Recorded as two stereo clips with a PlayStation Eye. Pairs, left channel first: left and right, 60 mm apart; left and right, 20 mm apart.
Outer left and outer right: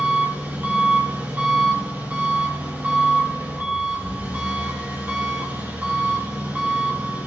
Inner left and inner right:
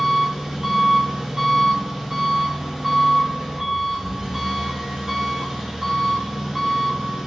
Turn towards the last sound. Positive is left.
turn(degrees=-30)  # may be behind; listen again after turning